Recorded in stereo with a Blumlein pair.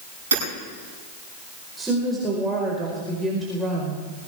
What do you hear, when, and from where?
0.3 s hammering: 65° right, 8 m
1.8 s a woman speaking: 10° right, 4.5 m